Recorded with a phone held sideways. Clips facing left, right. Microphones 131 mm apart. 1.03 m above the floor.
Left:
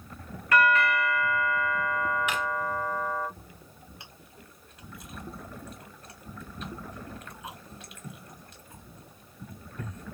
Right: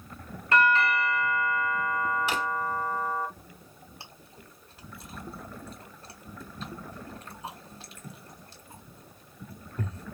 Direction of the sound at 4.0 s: 30° right (ahead or behind).